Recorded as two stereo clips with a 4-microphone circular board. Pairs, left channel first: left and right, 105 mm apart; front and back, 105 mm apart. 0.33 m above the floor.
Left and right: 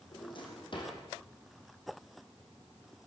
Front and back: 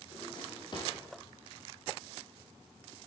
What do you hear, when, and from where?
0.1 s a drawer: 50° left, 5.5 m